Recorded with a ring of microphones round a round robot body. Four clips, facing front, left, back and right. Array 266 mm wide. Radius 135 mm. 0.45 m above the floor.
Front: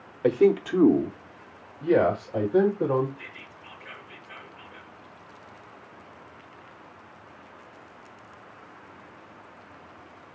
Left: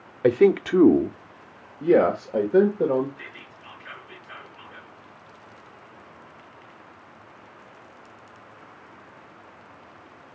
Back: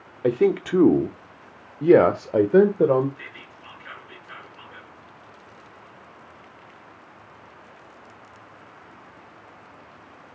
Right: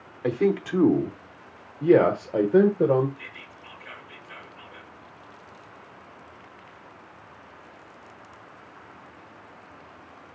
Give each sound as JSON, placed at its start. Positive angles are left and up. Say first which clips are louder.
{"t": 0.2, "sound": "a man speaking", "louder": "left 6 dB, even", "azimuth_deg": 90, "distance_m": 0.9}
{"t": 3.2, "sound": "whispering", "louder": "left 1 dB, back 2 dB", "azimuth_deg": 155, "distance_m": 5.5}